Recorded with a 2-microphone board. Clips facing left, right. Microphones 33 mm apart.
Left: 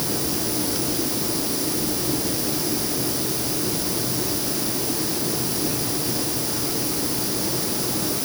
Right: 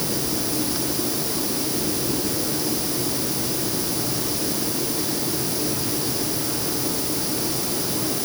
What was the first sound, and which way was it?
Only background noise.